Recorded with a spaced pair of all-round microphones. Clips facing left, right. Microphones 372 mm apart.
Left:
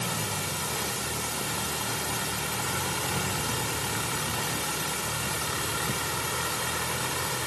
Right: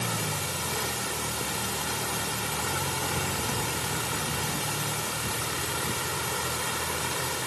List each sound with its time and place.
Only background noise.